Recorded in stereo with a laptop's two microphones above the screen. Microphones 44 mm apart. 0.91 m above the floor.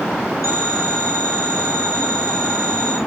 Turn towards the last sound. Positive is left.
turn(degrees=-85)